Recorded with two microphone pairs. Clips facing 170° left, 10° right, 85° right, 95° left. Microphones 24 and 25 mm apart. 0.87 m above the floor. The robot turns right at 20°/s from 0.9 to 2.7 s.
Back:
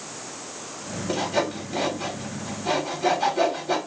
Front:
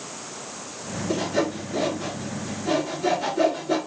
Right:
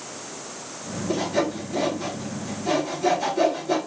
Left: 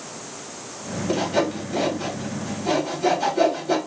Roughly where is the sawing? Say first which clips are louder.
Even, left 2 dB; behind left.